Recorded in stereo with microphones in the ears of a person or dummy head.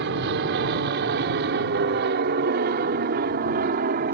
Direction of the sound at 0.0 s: 55° right (ahead or behind).